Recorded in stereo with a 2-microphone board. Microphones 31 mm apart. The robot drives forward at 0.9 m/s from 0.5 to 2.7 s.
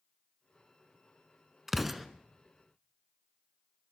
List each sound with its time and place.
1.7 s an explosion: 10° right (ahead or behind), 0.6 m; by 2.1 s 5° right (ahead or behind), 0.8 m